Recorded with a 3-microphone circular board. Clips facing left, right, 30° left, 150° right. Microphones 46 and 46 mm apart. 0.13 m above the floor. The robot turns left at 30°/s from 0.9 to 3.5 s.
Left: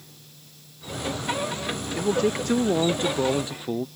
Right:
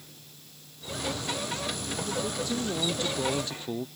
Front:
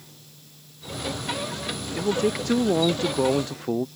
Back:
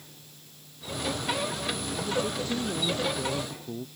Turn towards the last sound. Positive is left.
turn(degrees=20)